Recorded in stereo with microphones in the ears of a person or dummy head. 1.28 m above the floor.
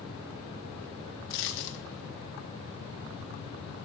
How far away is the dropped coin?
About 1.0 m.